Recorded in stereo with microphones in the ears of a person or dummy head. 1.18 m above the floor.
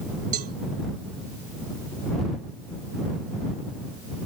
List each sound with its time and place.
0.3 s a cowbell: 45° right (ahead or behind)